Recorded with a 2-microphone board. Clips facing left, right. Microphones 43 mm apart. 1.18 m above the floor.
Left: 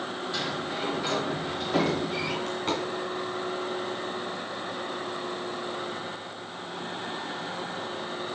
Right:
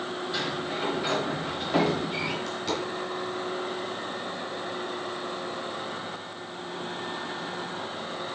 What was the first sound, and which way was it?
A sliding door, 10° right (ahead or behind).